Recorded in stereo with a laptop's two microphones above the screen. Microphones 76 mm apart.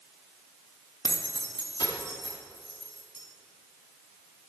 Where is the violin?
No violin in this recording.